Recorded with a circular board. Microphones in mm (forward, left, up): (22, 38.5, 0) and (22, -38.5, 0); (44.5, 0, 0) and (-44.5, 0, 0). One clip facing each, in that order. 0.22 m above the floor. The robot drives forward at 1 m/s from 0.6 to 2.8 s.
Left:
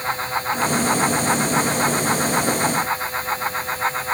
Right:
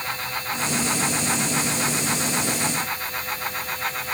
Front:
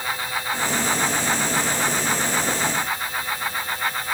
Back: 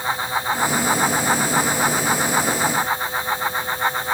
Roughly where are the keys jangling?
I don't hear keys jangling.